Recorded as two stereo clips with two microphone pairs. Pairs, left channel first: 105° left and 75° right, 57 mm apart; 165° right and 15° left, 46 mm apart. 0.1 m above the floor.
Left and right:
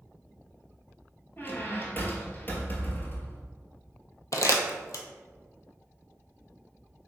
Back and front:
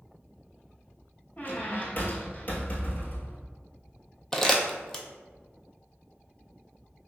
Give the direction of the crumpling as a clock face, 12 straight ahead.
8 o'clock.